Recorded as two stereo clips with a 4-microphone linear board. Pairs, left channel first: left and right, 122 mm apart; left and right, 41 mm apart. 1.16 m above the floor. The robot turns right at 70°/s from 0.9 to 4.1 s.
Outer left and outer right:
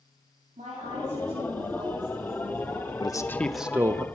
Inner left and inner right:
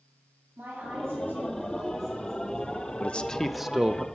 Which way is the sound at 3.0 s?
140° left.